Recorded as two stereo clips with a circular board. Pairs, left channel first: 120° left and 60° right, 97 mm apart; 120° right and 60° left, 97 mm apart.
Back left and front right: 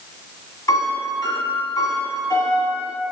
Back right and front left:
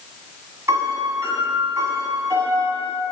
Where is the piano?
100° left, 1.7 m.